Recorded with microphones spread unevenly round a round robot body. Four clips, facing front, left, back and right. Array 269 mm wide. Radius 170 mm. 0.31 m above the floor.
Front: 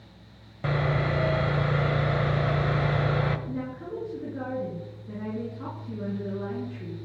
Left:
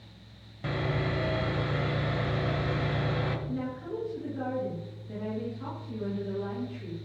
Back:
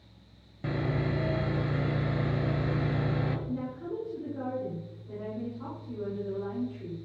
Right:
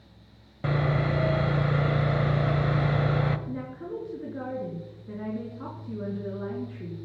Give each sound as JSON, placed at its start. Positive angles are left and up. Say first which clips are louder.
{"t": 0.6, "sound": "sawing", "louder": "right 4 dB, front 4 dB", "azimuth_deg": -50, "distance_m": 1.3}
{"t": 3.5, "sound": "a woman speaking", "louder": "left 1 dB, front 1 dB", "azimuth_deg": -45, "distance_m": 5.0}